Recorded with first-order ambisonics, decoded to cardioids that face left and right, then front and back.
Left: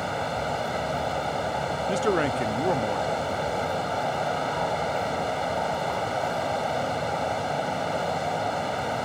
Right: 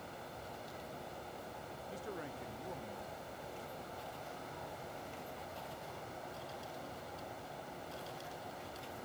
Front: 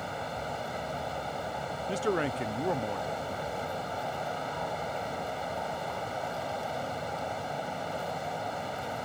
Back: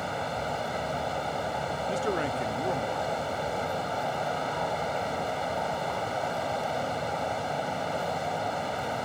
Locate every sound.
0.0 s running water: 105° left
1.9 s a man speaking: 85° left